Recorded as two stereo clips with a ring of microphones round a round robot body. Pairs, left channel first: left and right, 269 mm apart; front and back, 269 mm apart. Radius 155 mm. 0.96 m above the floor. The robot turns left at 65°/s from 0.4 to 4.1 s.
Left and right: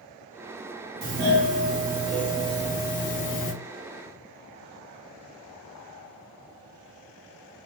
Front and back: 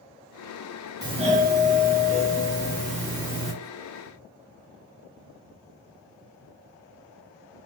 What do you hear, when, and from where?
1.0 s a doorbell: 110° right, 0.9 m; by 3.5 s 90° left, 0.9 m